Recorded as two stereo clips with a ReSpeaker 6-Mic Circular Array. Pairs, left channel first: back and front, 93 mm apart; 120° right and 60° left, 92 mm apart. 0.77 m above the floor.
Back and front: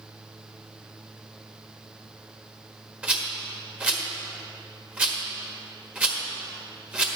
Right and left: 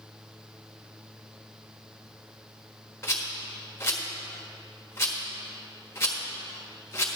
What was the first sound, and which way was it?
A rattle, 70° right.